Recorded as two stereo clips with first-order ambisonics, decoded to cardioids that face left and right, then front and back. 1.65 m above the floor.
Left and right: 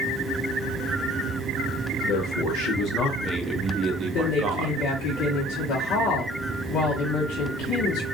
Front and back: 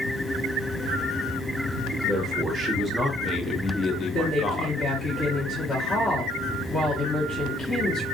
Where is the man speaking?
95° left, 1.0 m; by 4.9 s 70° right, 1.0 m.